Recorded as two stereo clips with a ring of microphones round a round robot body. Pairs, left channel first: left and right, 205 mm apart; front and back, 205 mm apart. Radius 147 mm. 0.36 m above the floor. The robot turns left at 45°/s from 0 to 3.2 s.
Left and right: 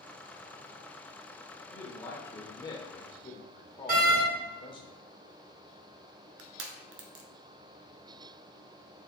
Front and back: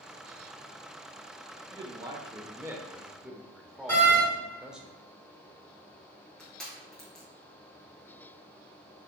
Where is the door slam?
70° right, 1.1 m.